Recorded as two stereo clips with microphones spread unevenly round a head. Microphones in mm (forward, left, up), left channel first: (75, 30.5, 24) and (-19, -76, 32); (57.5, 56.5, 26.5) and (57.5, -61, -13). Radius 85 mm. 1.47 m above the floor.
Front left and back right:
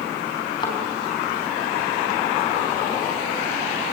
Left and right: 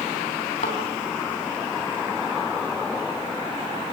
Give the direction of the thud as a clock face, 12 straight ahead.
8 o'clock.